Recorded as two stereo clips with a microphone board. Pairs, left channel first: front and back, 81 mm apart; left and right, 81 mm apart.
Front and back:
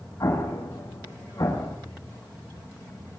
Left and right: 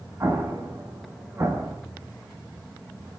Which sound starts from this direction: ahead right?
An explosion, at 0.2 s.